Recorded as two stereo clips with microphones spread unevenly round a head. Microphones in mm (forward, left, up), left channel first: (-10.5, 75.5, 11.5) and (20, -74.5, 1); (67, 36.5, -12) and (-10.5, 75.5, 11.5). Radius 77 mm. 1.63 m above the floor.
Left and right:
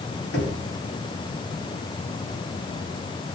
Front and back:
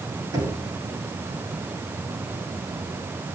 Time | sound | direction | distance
0.3 | knocking | 115° left | 9 m